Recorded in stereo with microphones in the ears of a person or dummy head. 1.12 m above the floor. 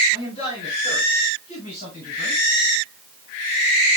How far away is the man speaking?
About 8 m.